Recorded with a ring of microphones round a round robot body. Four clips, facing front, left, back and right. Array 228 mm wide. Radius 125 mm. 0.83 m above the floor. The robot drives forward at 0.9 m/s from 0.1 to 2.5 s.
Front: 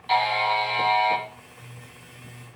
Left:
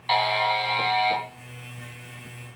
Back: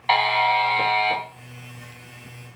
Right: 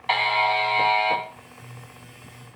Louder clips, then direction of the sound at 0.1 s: Right 1 dB, back 3 dB; 165° right.